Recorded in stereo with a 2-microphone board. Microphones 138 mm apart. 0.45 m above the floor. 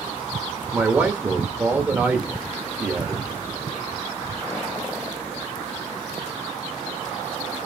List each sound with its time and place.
0.7 s a man speaking: 10° right (ahead or behind), 1.0 m